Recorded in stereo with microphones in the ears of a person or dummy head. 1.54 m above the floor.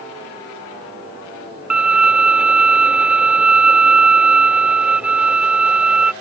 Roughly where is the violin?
Centre.